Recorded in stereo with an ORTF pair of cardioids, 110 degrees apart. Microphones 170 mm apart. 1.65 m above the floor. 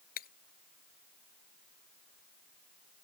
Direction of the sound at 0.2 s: 60° left.